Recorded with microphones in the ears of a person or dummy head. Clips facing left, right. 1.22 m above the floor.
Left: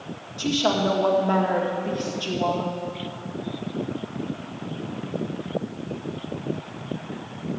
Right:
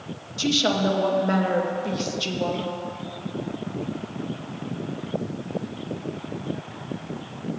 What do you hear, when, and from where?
0.4 s a woman speaking: 30° right (ahead or behind), 1.9 m